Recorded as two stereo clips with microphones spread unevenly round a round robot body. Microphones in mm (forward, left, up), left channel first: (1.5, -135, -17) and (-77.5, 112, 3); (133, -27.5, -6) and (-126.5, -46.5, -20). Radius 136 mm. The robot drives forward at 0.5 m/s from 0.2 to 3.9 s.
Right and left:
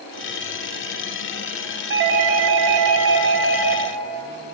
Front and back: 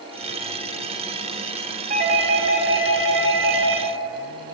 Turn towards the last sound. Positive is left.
turn(degrees=150)